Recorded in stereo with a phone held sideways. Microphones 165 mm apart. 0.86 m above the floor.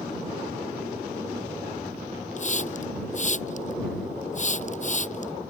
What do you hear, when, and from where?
2.4 s a hiss: 50° left (ahead or behind)